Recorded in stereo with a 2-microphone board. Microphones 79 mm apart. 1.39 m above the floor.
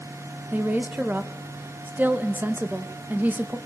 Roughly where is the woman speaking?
Right.